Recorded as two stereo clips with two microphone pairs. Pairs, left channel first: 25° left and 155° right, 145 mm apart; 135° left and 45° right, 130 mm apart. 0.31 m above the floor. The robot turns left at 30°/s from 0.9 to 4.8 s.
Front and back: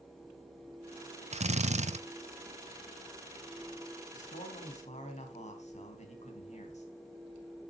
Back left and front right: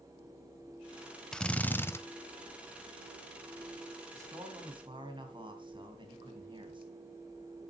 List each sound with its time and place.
1.3 s a drill: 140° right, 0.6 m; by 2.0 s 160° right, 0.6 m
4.1 s a man speaking: 20° left, 2.5 m; by 6.8 s straight ahead, 2.5 m